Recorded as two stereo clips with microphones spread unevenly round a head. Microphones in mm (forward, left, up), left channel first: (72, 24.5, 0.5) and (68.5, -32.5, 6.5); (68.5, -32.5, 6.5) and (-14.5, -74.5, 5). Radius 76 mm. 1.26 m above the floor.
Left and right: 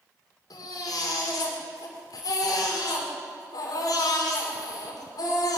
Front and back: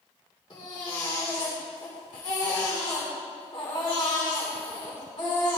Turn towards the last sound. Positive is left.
turn(degrees=90)